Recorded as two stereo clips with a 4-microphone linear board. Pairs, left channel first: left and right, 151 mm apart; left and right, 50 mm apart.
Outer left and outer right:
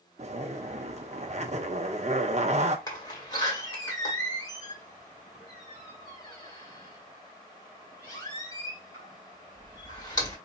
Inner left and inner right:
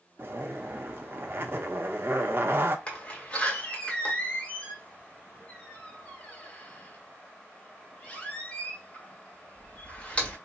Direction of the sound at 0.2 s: 50° right (ahead or behind).